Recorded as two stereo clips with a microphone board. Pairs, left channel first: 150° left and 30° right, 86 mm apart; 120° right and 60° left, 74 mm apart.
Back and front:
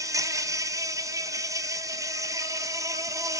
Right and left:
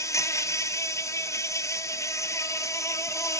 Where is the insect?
75° right, 1.1 m.